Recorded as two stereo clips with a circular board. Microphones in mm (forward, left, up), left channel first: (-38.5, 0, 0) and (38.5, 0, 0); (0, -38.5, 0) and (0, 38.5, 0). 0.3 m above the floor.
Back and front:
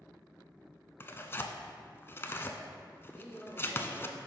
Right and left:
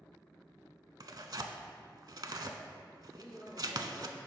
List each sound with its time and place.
1.0 s tearing paper: 120° left, 0.5 m
3.1 s a man speaking: 95° right, 1.6 m